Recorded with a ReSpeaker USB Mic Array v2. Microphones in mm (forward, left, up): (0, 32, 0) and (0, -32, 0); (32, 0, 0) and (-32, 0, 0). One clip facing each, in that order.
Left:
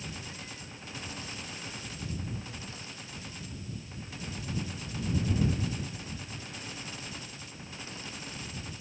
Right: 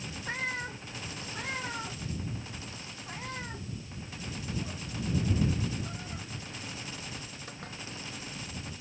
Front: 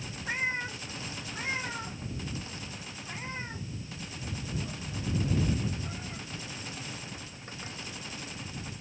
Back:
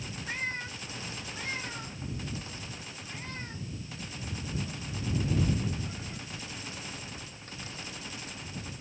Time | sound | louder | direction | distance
0.3 | a cat meowing | right 10 dB, front 4 dB | 70° right | ?